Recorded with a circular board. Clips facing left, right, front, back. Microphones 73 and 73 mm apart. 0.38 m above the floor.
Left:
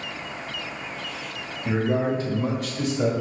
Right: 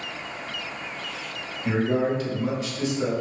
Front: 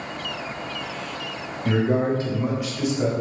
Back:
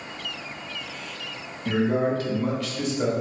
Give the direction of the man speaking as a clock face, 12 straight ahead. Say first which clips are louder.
Even, front 1 dB; 12 o'clock.